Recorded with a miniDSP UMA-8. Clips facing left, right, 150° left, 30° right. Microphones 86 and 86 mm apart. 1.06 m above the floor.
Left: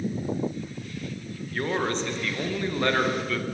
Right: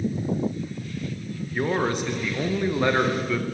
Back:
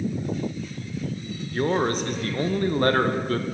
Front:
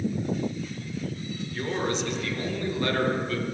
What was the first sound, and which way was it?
A man speaking, 170° right.